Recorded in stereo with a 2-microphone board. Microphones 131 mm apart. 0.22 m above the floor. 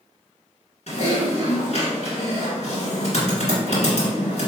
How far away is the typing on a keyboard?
About 1.8 m.